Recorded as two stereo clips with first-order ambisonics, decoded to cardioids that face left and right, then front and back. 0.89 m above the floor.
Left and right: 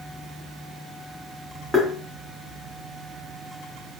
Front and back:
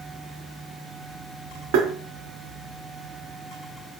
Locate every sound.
1.7 s tapping: straight behind, 0.6 m